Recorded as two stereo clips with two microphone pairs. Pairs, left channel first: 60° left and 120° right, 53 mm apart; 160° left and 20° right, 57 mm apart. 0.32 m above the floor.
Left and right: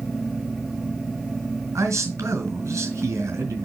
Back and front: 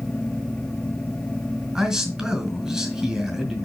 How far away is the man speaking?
About 4 m.